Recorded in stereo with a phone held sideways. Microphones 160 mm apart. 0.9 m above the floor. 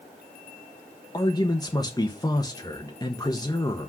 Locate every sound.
1.1 s a man speaking: 25° left (ahead or behind), 1.0 m